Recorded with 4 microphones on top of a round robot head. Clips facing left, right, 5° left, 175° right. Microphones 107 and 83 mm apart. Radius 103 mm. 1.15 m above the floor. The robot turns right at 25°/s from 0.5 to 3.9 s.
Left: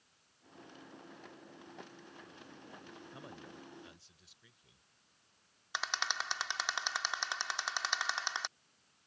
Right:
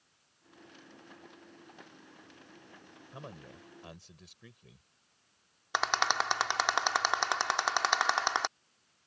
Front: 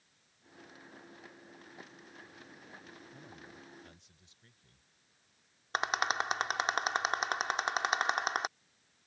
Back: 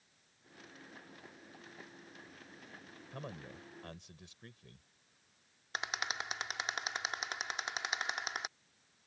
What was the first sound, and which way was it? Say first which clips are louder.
A man speaking: right 6 dB, back 5 dB; 155° right.